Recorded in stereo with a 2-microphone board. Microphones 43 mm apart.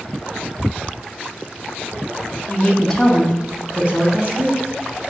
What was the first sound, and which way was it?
A woman speaking, 30° left (ahead or behind).